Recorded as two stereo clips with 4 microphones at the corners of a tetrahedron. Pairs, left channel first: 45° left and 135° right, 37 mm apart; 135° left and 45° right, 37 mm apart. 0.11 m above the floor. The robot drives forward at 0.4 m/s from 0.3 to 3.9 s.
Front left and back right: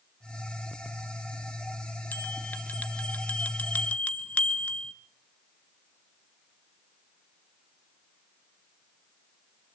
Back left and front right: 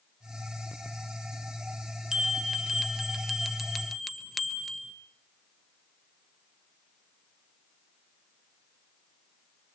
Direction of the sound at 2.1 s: 20° left.